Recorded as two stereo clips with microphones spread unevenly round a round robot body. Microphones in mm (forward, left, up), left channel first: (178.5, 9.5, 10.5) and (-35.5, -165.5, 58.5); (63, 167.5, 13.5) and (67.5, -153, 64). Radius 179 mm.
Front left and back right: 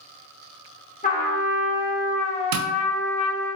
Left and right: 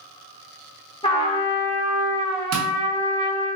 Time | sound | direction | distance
1.0 | a trumpet | 40° left | 0.9 m
2.5 | tapping | 145° right | 0.6 m